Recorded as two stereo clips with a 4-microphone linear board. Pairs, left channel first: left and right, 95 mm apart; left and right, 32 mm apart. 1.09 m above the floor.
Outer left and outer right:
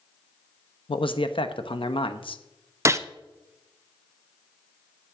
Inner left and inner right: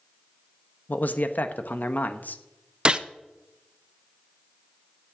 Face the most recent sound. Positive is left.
turn(degrees=-35)  # may be behind; listen again after turning